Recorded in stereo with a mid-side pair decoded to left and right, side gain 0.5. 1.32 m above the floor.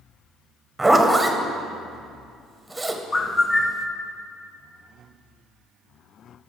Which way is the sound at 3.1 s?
30° left.